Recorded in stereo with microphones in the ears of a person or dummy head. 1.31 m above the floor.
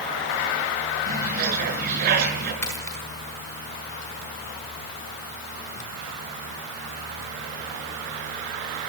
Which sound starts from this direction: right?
A bird, at 1.1 s.